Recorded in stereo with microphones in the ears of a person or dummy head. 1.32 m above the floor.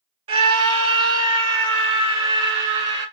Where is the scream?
30° right (ahead or behind), 1.1 m; by 3.0 s 25° right (ahead or behind), 2.5 m.